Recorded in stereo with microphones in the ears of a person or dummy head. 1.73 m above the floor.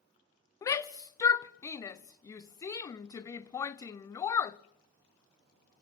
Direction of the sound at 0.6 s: 20° left (ahead or behind).